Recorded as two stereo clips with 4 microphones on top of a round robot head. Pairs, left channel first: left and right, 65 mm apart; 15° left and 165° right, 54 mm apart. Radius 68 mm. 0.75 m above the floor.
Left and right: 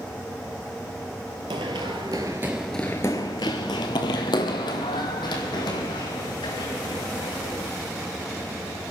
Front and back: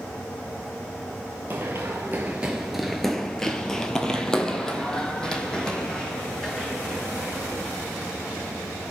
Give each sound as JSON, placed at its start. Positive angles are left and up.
{"t": 1.5, "sound": "running footsteps", "azimuth_deg": -95, "distance_m": 1.1}